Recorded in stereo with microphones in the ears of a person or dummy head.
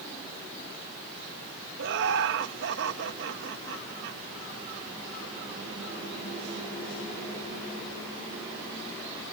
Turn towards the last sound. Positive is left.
turn(degrees=-60)  # may be behind; listen again after turning